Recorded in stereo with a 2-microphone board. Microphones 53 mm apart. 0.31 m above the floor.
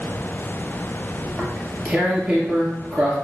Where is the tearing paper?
20° right (ahead or behind), 1.9 m.